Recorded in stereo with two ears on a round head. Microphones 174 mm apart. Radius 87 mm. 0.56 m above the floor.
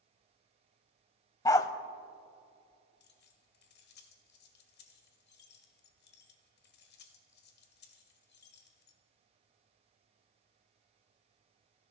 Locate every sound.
1.4 s a dog barking: 20° left (ahead or behind), 0.6 m
3.0 s keys jangling: 55° left (ahead or behind), 1.6 m